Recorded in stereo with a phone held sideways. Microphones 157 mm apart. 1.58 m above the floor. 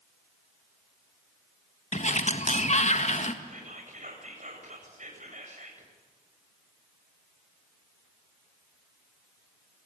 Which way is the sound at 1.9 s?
45° left (ahead or behind).